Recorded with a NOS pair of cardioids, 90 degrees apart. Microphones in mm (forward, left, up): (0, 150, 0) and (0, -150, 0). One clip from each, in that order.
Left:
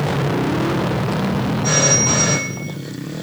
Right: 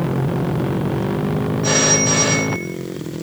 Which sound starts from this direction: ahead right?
A phone ringing, at 1.6 s.